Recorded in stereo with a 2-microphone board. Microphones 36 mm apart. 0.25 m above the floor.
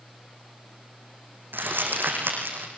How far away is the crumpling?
About 7 m.